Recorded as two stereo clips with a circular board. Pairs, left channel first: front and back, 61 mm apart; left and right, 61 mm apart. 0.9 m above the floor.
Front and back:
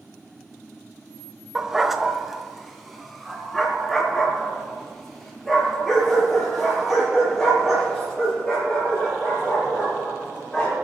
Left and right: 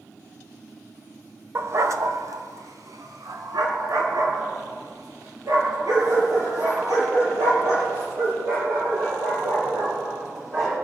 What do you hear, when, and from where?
1.6 s a dog barking: 100° right, 0.8 m; by 10.7 s 90° right, 10.5 m